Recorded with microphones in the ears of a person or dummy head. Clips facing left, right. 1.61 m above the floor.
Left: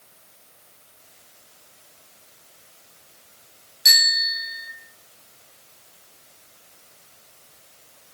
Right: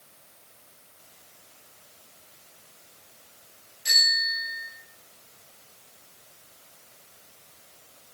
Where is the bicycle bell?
80° left, 8 m.